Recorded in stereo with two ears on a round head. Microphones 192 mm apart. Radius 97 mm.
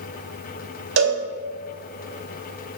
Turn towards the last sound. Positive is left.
turn(degrees=-65)  # may be behind; listen again after turning